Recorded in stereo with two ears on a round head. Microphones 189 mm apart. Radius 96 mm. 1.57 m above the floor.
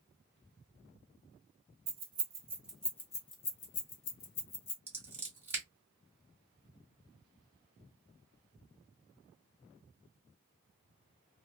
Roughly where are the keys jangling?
Right.